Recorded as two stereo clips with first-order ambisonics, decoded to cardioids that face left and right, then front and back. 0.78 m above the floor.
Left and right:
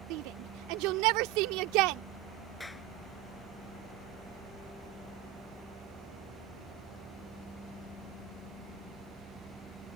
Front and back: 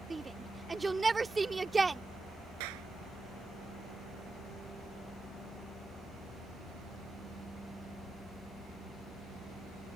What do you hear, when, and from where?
0.1 s a shout: 100° right
2.6 s a clap: 175° left